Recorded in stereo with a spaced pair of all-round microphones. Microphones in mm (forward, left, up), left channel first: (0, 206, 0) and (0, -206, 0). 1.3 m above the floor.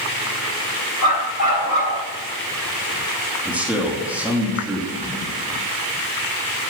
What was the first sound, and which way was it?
A dog barking, 45° left (ahead or behind).